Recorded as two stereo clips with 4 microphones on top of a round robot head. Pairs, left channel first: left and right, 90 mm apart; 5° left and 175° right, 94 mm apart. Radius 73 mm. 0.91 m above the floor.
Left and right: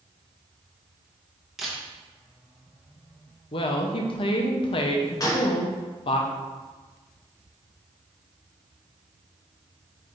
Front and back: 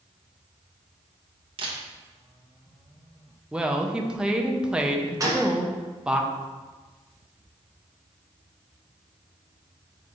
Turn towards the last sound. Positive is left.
turn(degrees=135)